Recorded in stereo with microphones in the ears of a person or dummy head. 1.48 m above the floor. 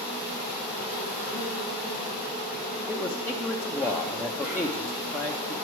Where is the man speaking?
10° left (ahead or behind), 0.6 m.